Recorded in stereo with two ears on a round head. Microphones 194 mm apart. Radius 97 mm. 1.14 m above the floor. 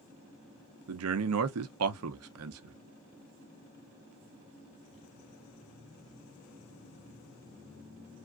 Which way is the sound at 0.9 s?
75° right (ahead or behind).